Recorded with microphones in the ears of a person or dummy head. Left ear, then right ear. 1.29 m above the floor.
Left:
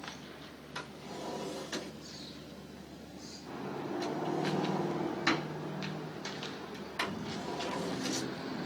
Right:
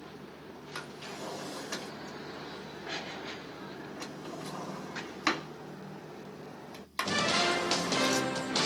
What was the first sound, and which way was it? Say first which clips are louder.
A drawer: right 1 dB; 60° right (ahead or behind).